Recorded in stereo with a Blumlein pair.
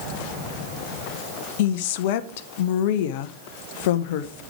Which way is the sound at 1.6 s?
50° left.